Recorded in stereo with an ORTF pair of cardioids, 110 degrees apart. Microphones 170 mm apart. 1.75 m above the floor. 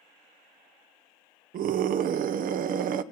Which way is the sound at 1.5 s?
55° right.